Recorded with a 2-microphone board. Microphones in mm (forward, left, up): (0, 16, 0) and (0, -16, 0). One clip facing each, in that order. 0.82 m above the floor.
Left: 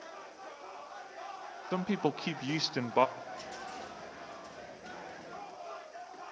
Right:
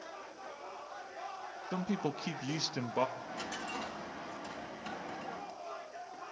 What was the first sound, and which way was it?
A man speaking, 30° left (ahead or behind).